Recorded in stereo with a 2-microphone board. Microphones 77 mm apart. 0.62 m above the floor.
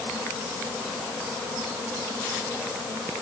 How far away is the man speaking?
No man speaking in this recording.